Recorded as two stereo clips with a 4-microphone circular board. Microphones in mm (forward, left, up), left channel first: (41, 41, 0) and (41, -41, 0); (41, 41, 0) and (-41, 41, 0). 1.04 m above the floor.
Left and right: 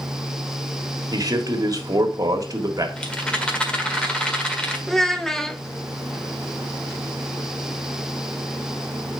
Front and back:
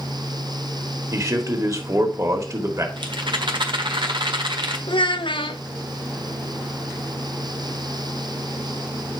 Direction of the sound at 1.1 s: 130° right.